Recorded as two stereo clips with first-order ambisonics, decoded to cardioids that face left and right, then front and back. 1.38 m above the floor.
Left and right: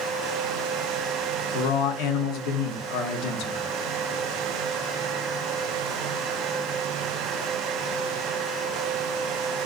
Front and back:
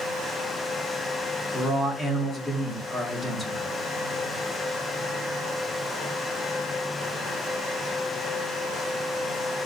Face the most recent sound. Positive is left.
turn(degrees=95)